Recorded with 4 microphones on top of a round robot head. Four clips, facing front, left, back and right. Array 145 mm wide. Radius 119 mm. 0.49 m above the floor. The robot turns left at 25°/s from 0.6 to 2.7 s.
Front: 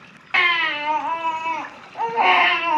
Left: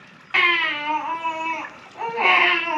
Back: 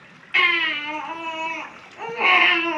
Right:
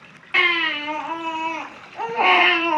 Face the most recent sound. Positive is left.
turn(degrees=-45)